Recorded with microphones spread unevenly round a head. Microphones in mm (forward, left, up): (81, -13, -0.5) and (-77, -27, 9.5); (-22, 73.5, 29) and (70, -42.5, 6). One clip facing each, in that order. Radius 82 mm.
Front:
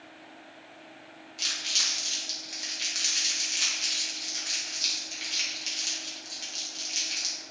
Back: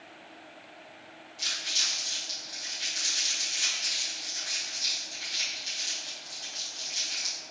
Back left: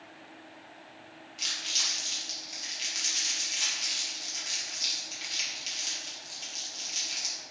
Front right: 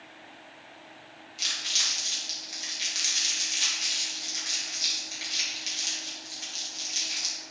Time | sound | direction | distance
1.4 | crumpling | 35° left | 2.5 m